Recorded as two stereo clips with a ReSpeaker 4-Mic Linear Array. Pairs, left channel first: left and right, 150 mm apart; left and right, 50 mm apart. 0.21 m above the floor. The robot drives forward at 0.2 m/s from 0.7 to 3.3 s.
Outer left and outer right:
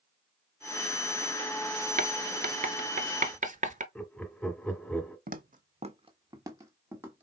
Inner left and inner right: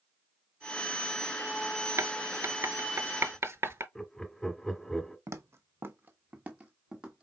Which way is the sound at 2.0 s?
80° right.